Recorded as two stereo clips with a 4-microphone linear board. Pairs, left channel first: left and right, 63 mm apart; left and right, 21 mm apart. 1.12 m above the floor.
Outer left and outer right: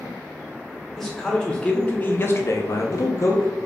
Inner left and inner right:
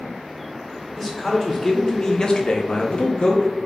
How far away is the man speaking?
About 1.3 m.